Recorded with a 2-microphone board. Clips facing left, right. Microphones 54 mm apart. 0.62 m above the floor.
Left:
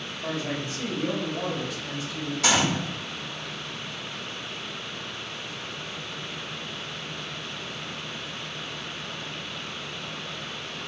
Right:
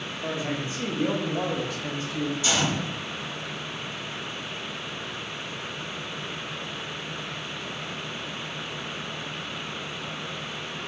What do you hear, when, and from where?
0.2 s a man speaking: 20° right (ahead or behind), 1.5 m; by 2.3 s 50° right (ahead or behind), 1.1 m
2.4 s a gunshot: 75° left (ahead or behind), 1.1 m